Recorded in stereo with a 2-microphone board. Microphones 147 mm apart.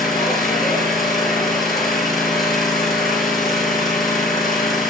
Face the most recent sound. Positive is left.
turn(degrees=0)  # may be behind; listen again after turning